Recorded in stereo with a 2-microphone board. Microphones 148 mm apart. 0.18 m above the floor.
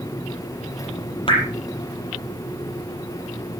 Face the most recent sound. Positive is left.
turn(degrees=35)  # may be behind; listen again after turning